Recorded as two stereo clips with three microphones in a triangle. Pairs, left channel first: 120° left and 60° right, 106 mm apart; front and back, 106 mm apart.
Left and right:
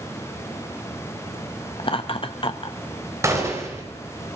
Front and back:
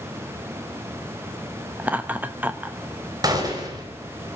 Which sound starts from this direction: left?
Laughter, at 1.8 s.